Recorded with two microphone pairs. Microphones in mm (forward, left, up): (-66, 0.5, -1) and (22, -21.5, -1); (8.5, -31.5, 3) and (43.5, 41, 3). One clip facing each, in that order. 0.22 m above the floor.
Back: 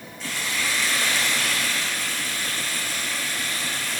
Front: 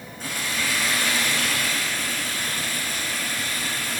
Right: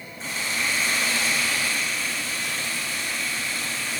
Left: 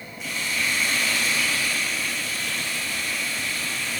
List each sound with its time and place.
0.2 s frying: 60° right, 5.5 m